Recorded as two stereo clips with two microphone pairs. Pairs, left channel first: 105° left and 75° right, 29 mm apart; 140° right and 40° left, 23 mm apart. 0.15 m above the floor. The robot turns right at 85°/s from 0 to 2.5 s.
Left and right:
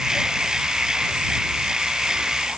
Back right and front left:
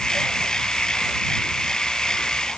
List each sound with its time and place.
Only background noise.